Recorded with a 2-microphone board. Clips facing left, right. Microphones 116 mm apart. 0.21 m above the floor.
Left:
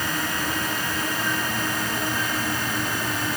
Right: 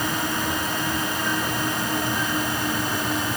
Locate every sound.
Only background noise.